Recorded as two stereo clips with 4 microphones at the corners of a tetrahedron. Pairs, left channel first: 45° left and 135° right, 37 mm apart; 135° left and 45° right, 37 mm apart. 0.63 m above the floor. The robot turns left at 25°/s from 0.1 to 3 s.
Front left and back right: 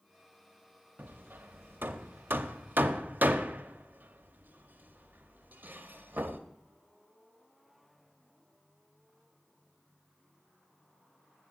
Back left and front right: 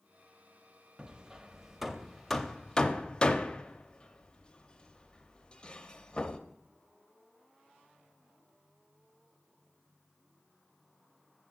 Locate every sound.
1.0 s hammering: 115° right, 0.6 m; by 6.4 s 165° right, 0.6 m